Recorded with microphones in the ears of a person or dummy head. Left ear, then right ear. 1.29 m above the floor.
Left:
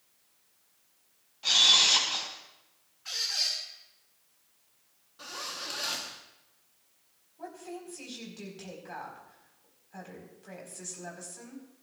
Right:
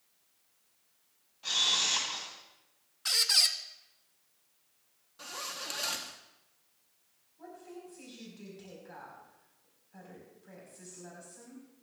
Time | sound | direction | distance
1.4 | a camera shutter | 10° left (ahead or behind) | 3 m
3.0 | a squeak | 60° right (ahead or behind) | 0.9 m
5.2 | a zipper | 15° right (ahead or behind) | 1.1 m
7.4 | a woman speaking | 30° left (ahead or behind) | 4.5 m